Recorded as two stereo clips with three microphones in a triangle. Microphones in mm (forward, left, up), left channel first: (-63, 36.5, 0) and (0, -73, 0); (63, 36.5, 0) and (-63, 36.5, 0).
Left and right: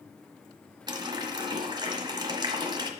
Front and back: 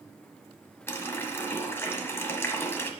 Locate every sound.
0.9 s a running tap: 55° right, 1.0 m